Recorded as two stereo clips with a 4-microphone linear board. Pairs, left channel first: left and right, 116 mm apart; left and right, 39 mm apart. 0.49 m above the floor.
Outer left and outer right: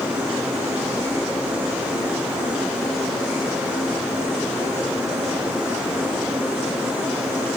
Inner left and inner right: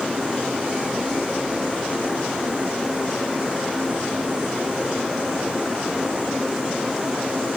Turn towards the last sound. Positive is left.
No sound to turn to.